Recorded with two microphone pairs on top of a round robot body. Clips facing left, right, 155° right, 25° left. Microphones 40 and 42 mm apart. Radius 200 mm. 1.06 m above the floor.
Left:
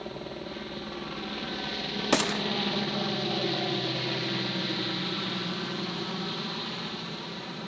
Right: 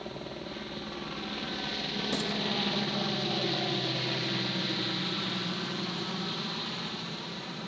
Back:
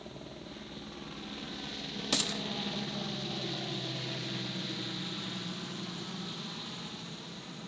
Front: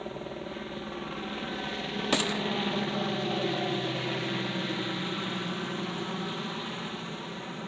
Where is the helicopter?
10° left.